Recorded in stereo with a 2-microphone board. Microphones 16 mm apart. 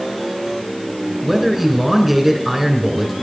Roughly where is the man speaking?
Centre.